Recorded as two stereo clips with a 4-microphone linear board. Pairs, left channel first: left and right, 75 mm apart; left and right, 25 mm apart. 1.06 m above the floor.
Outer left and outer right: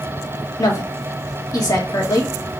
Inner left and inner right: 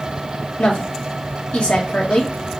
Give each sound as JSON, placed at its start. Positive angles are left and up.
{"t": 0.6, "sound": "a woman speaking", "side_deg": 60, "distance_m": 1.6}